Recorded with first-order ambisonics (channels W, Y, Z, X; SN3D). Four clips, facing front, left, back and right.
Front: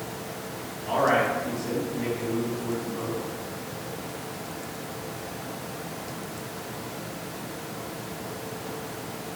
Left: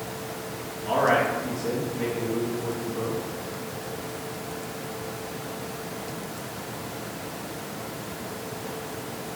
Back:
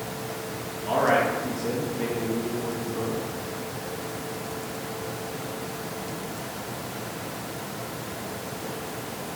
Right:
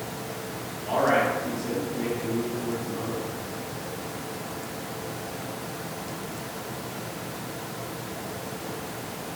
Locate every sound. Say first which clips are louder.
0.8 s a man speaking: left 1 dB, back 1 dB; 150° left, 0.9 m